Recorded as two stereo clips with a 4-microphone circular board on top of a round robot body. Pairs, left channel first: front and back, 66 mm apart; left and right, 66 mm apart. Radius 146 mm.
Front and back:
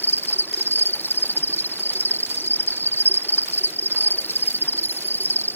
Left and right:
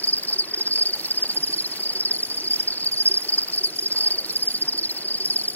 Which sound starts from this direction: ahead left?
An insect, at 0.0 s.